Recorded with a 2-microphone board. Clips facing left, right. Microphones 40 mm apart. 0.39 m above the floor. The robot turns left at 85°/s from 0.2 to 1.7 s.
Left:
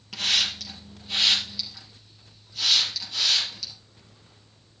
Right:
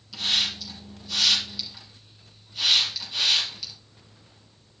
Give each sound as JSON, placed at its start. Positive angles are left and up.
{"t": 0.1, "sound": "a hiss", "side_deg": 60, "distance_m": 4.0}